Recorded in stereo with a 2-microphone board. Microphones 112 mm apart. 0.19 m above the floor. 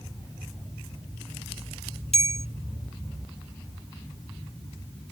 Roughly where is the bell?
Left.